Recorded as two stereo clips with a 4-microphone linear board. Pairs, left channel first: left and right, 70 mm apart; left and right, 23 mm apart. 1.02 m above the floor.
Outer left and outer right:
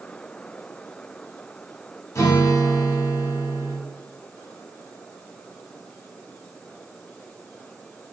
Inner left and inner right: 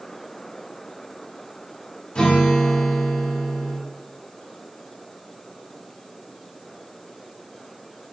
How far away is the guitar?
About 0.8 m.